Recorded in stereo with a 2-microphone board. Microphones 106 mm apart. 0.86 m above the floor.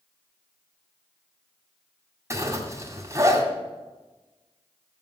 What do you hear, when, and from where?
2.3 s a zipper: 30° right (ahead or behind), 2.0 m